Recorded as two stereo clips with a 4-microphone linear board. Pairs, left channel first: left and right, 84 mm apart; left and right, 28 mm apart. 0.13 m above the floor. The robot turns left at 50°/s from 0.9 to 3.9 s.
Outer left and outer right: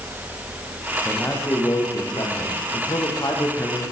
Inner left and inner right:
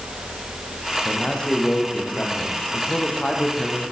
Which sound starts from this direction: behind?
A man speaking, at 1.1 s.